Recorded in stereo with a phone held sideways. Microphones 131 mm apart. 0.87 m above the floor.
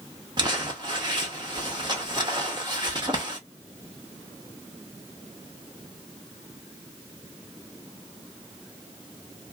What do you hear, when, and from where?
0.4 s crumpling: 35° right (ahead or behind), 1.2 m